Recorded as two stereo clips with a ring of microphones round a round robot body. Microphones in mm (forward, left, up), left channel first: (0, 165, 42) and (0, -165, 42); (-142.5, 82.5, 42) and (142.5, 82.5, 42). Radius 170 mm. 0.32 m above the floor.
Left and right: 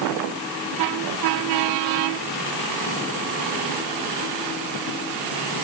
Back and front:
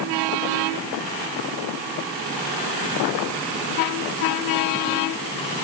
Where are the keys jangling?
No keys jangling in this recording.